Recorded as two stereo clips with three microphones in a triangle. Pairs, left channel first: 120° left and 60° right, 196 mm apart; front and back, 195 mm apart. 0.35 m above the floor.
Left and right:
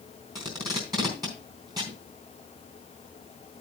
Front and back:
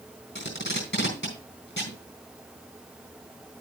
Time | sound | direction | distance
0.3 | tape being pulled | 10° left | 3.5 m